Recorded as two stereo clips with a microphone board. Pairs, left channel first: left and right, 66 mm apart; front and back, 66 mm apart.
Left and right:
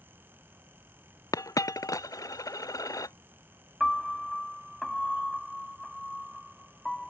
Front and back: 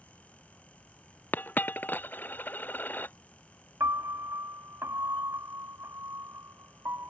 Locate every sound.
1.3 s a dropped coin: 60° left
3.8 s a piano: 175° left